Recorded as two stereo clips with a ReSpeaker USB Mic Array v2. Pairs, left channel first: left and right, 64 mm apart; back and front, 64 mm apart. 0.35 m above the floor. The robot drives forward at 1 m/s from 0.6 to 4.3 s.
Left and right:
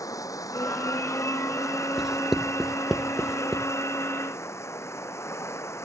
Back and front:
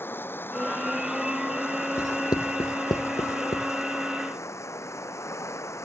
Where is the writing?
170° right; by 3.7 s 175° right.